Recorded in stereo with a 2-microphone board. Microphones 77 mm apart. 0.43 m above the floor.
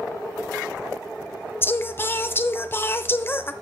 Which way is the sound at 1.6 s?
30° left (ahead or behind).